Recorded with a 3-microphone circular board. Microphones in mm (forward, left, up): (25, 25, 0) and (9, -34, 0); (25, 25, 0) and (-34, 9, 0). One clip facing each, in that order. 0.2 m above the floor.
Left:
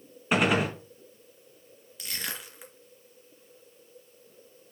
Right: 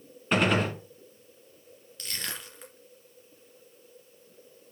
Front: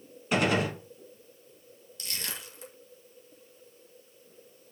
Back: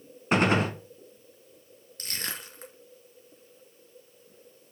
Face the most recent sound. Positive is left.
turn(degrees=160)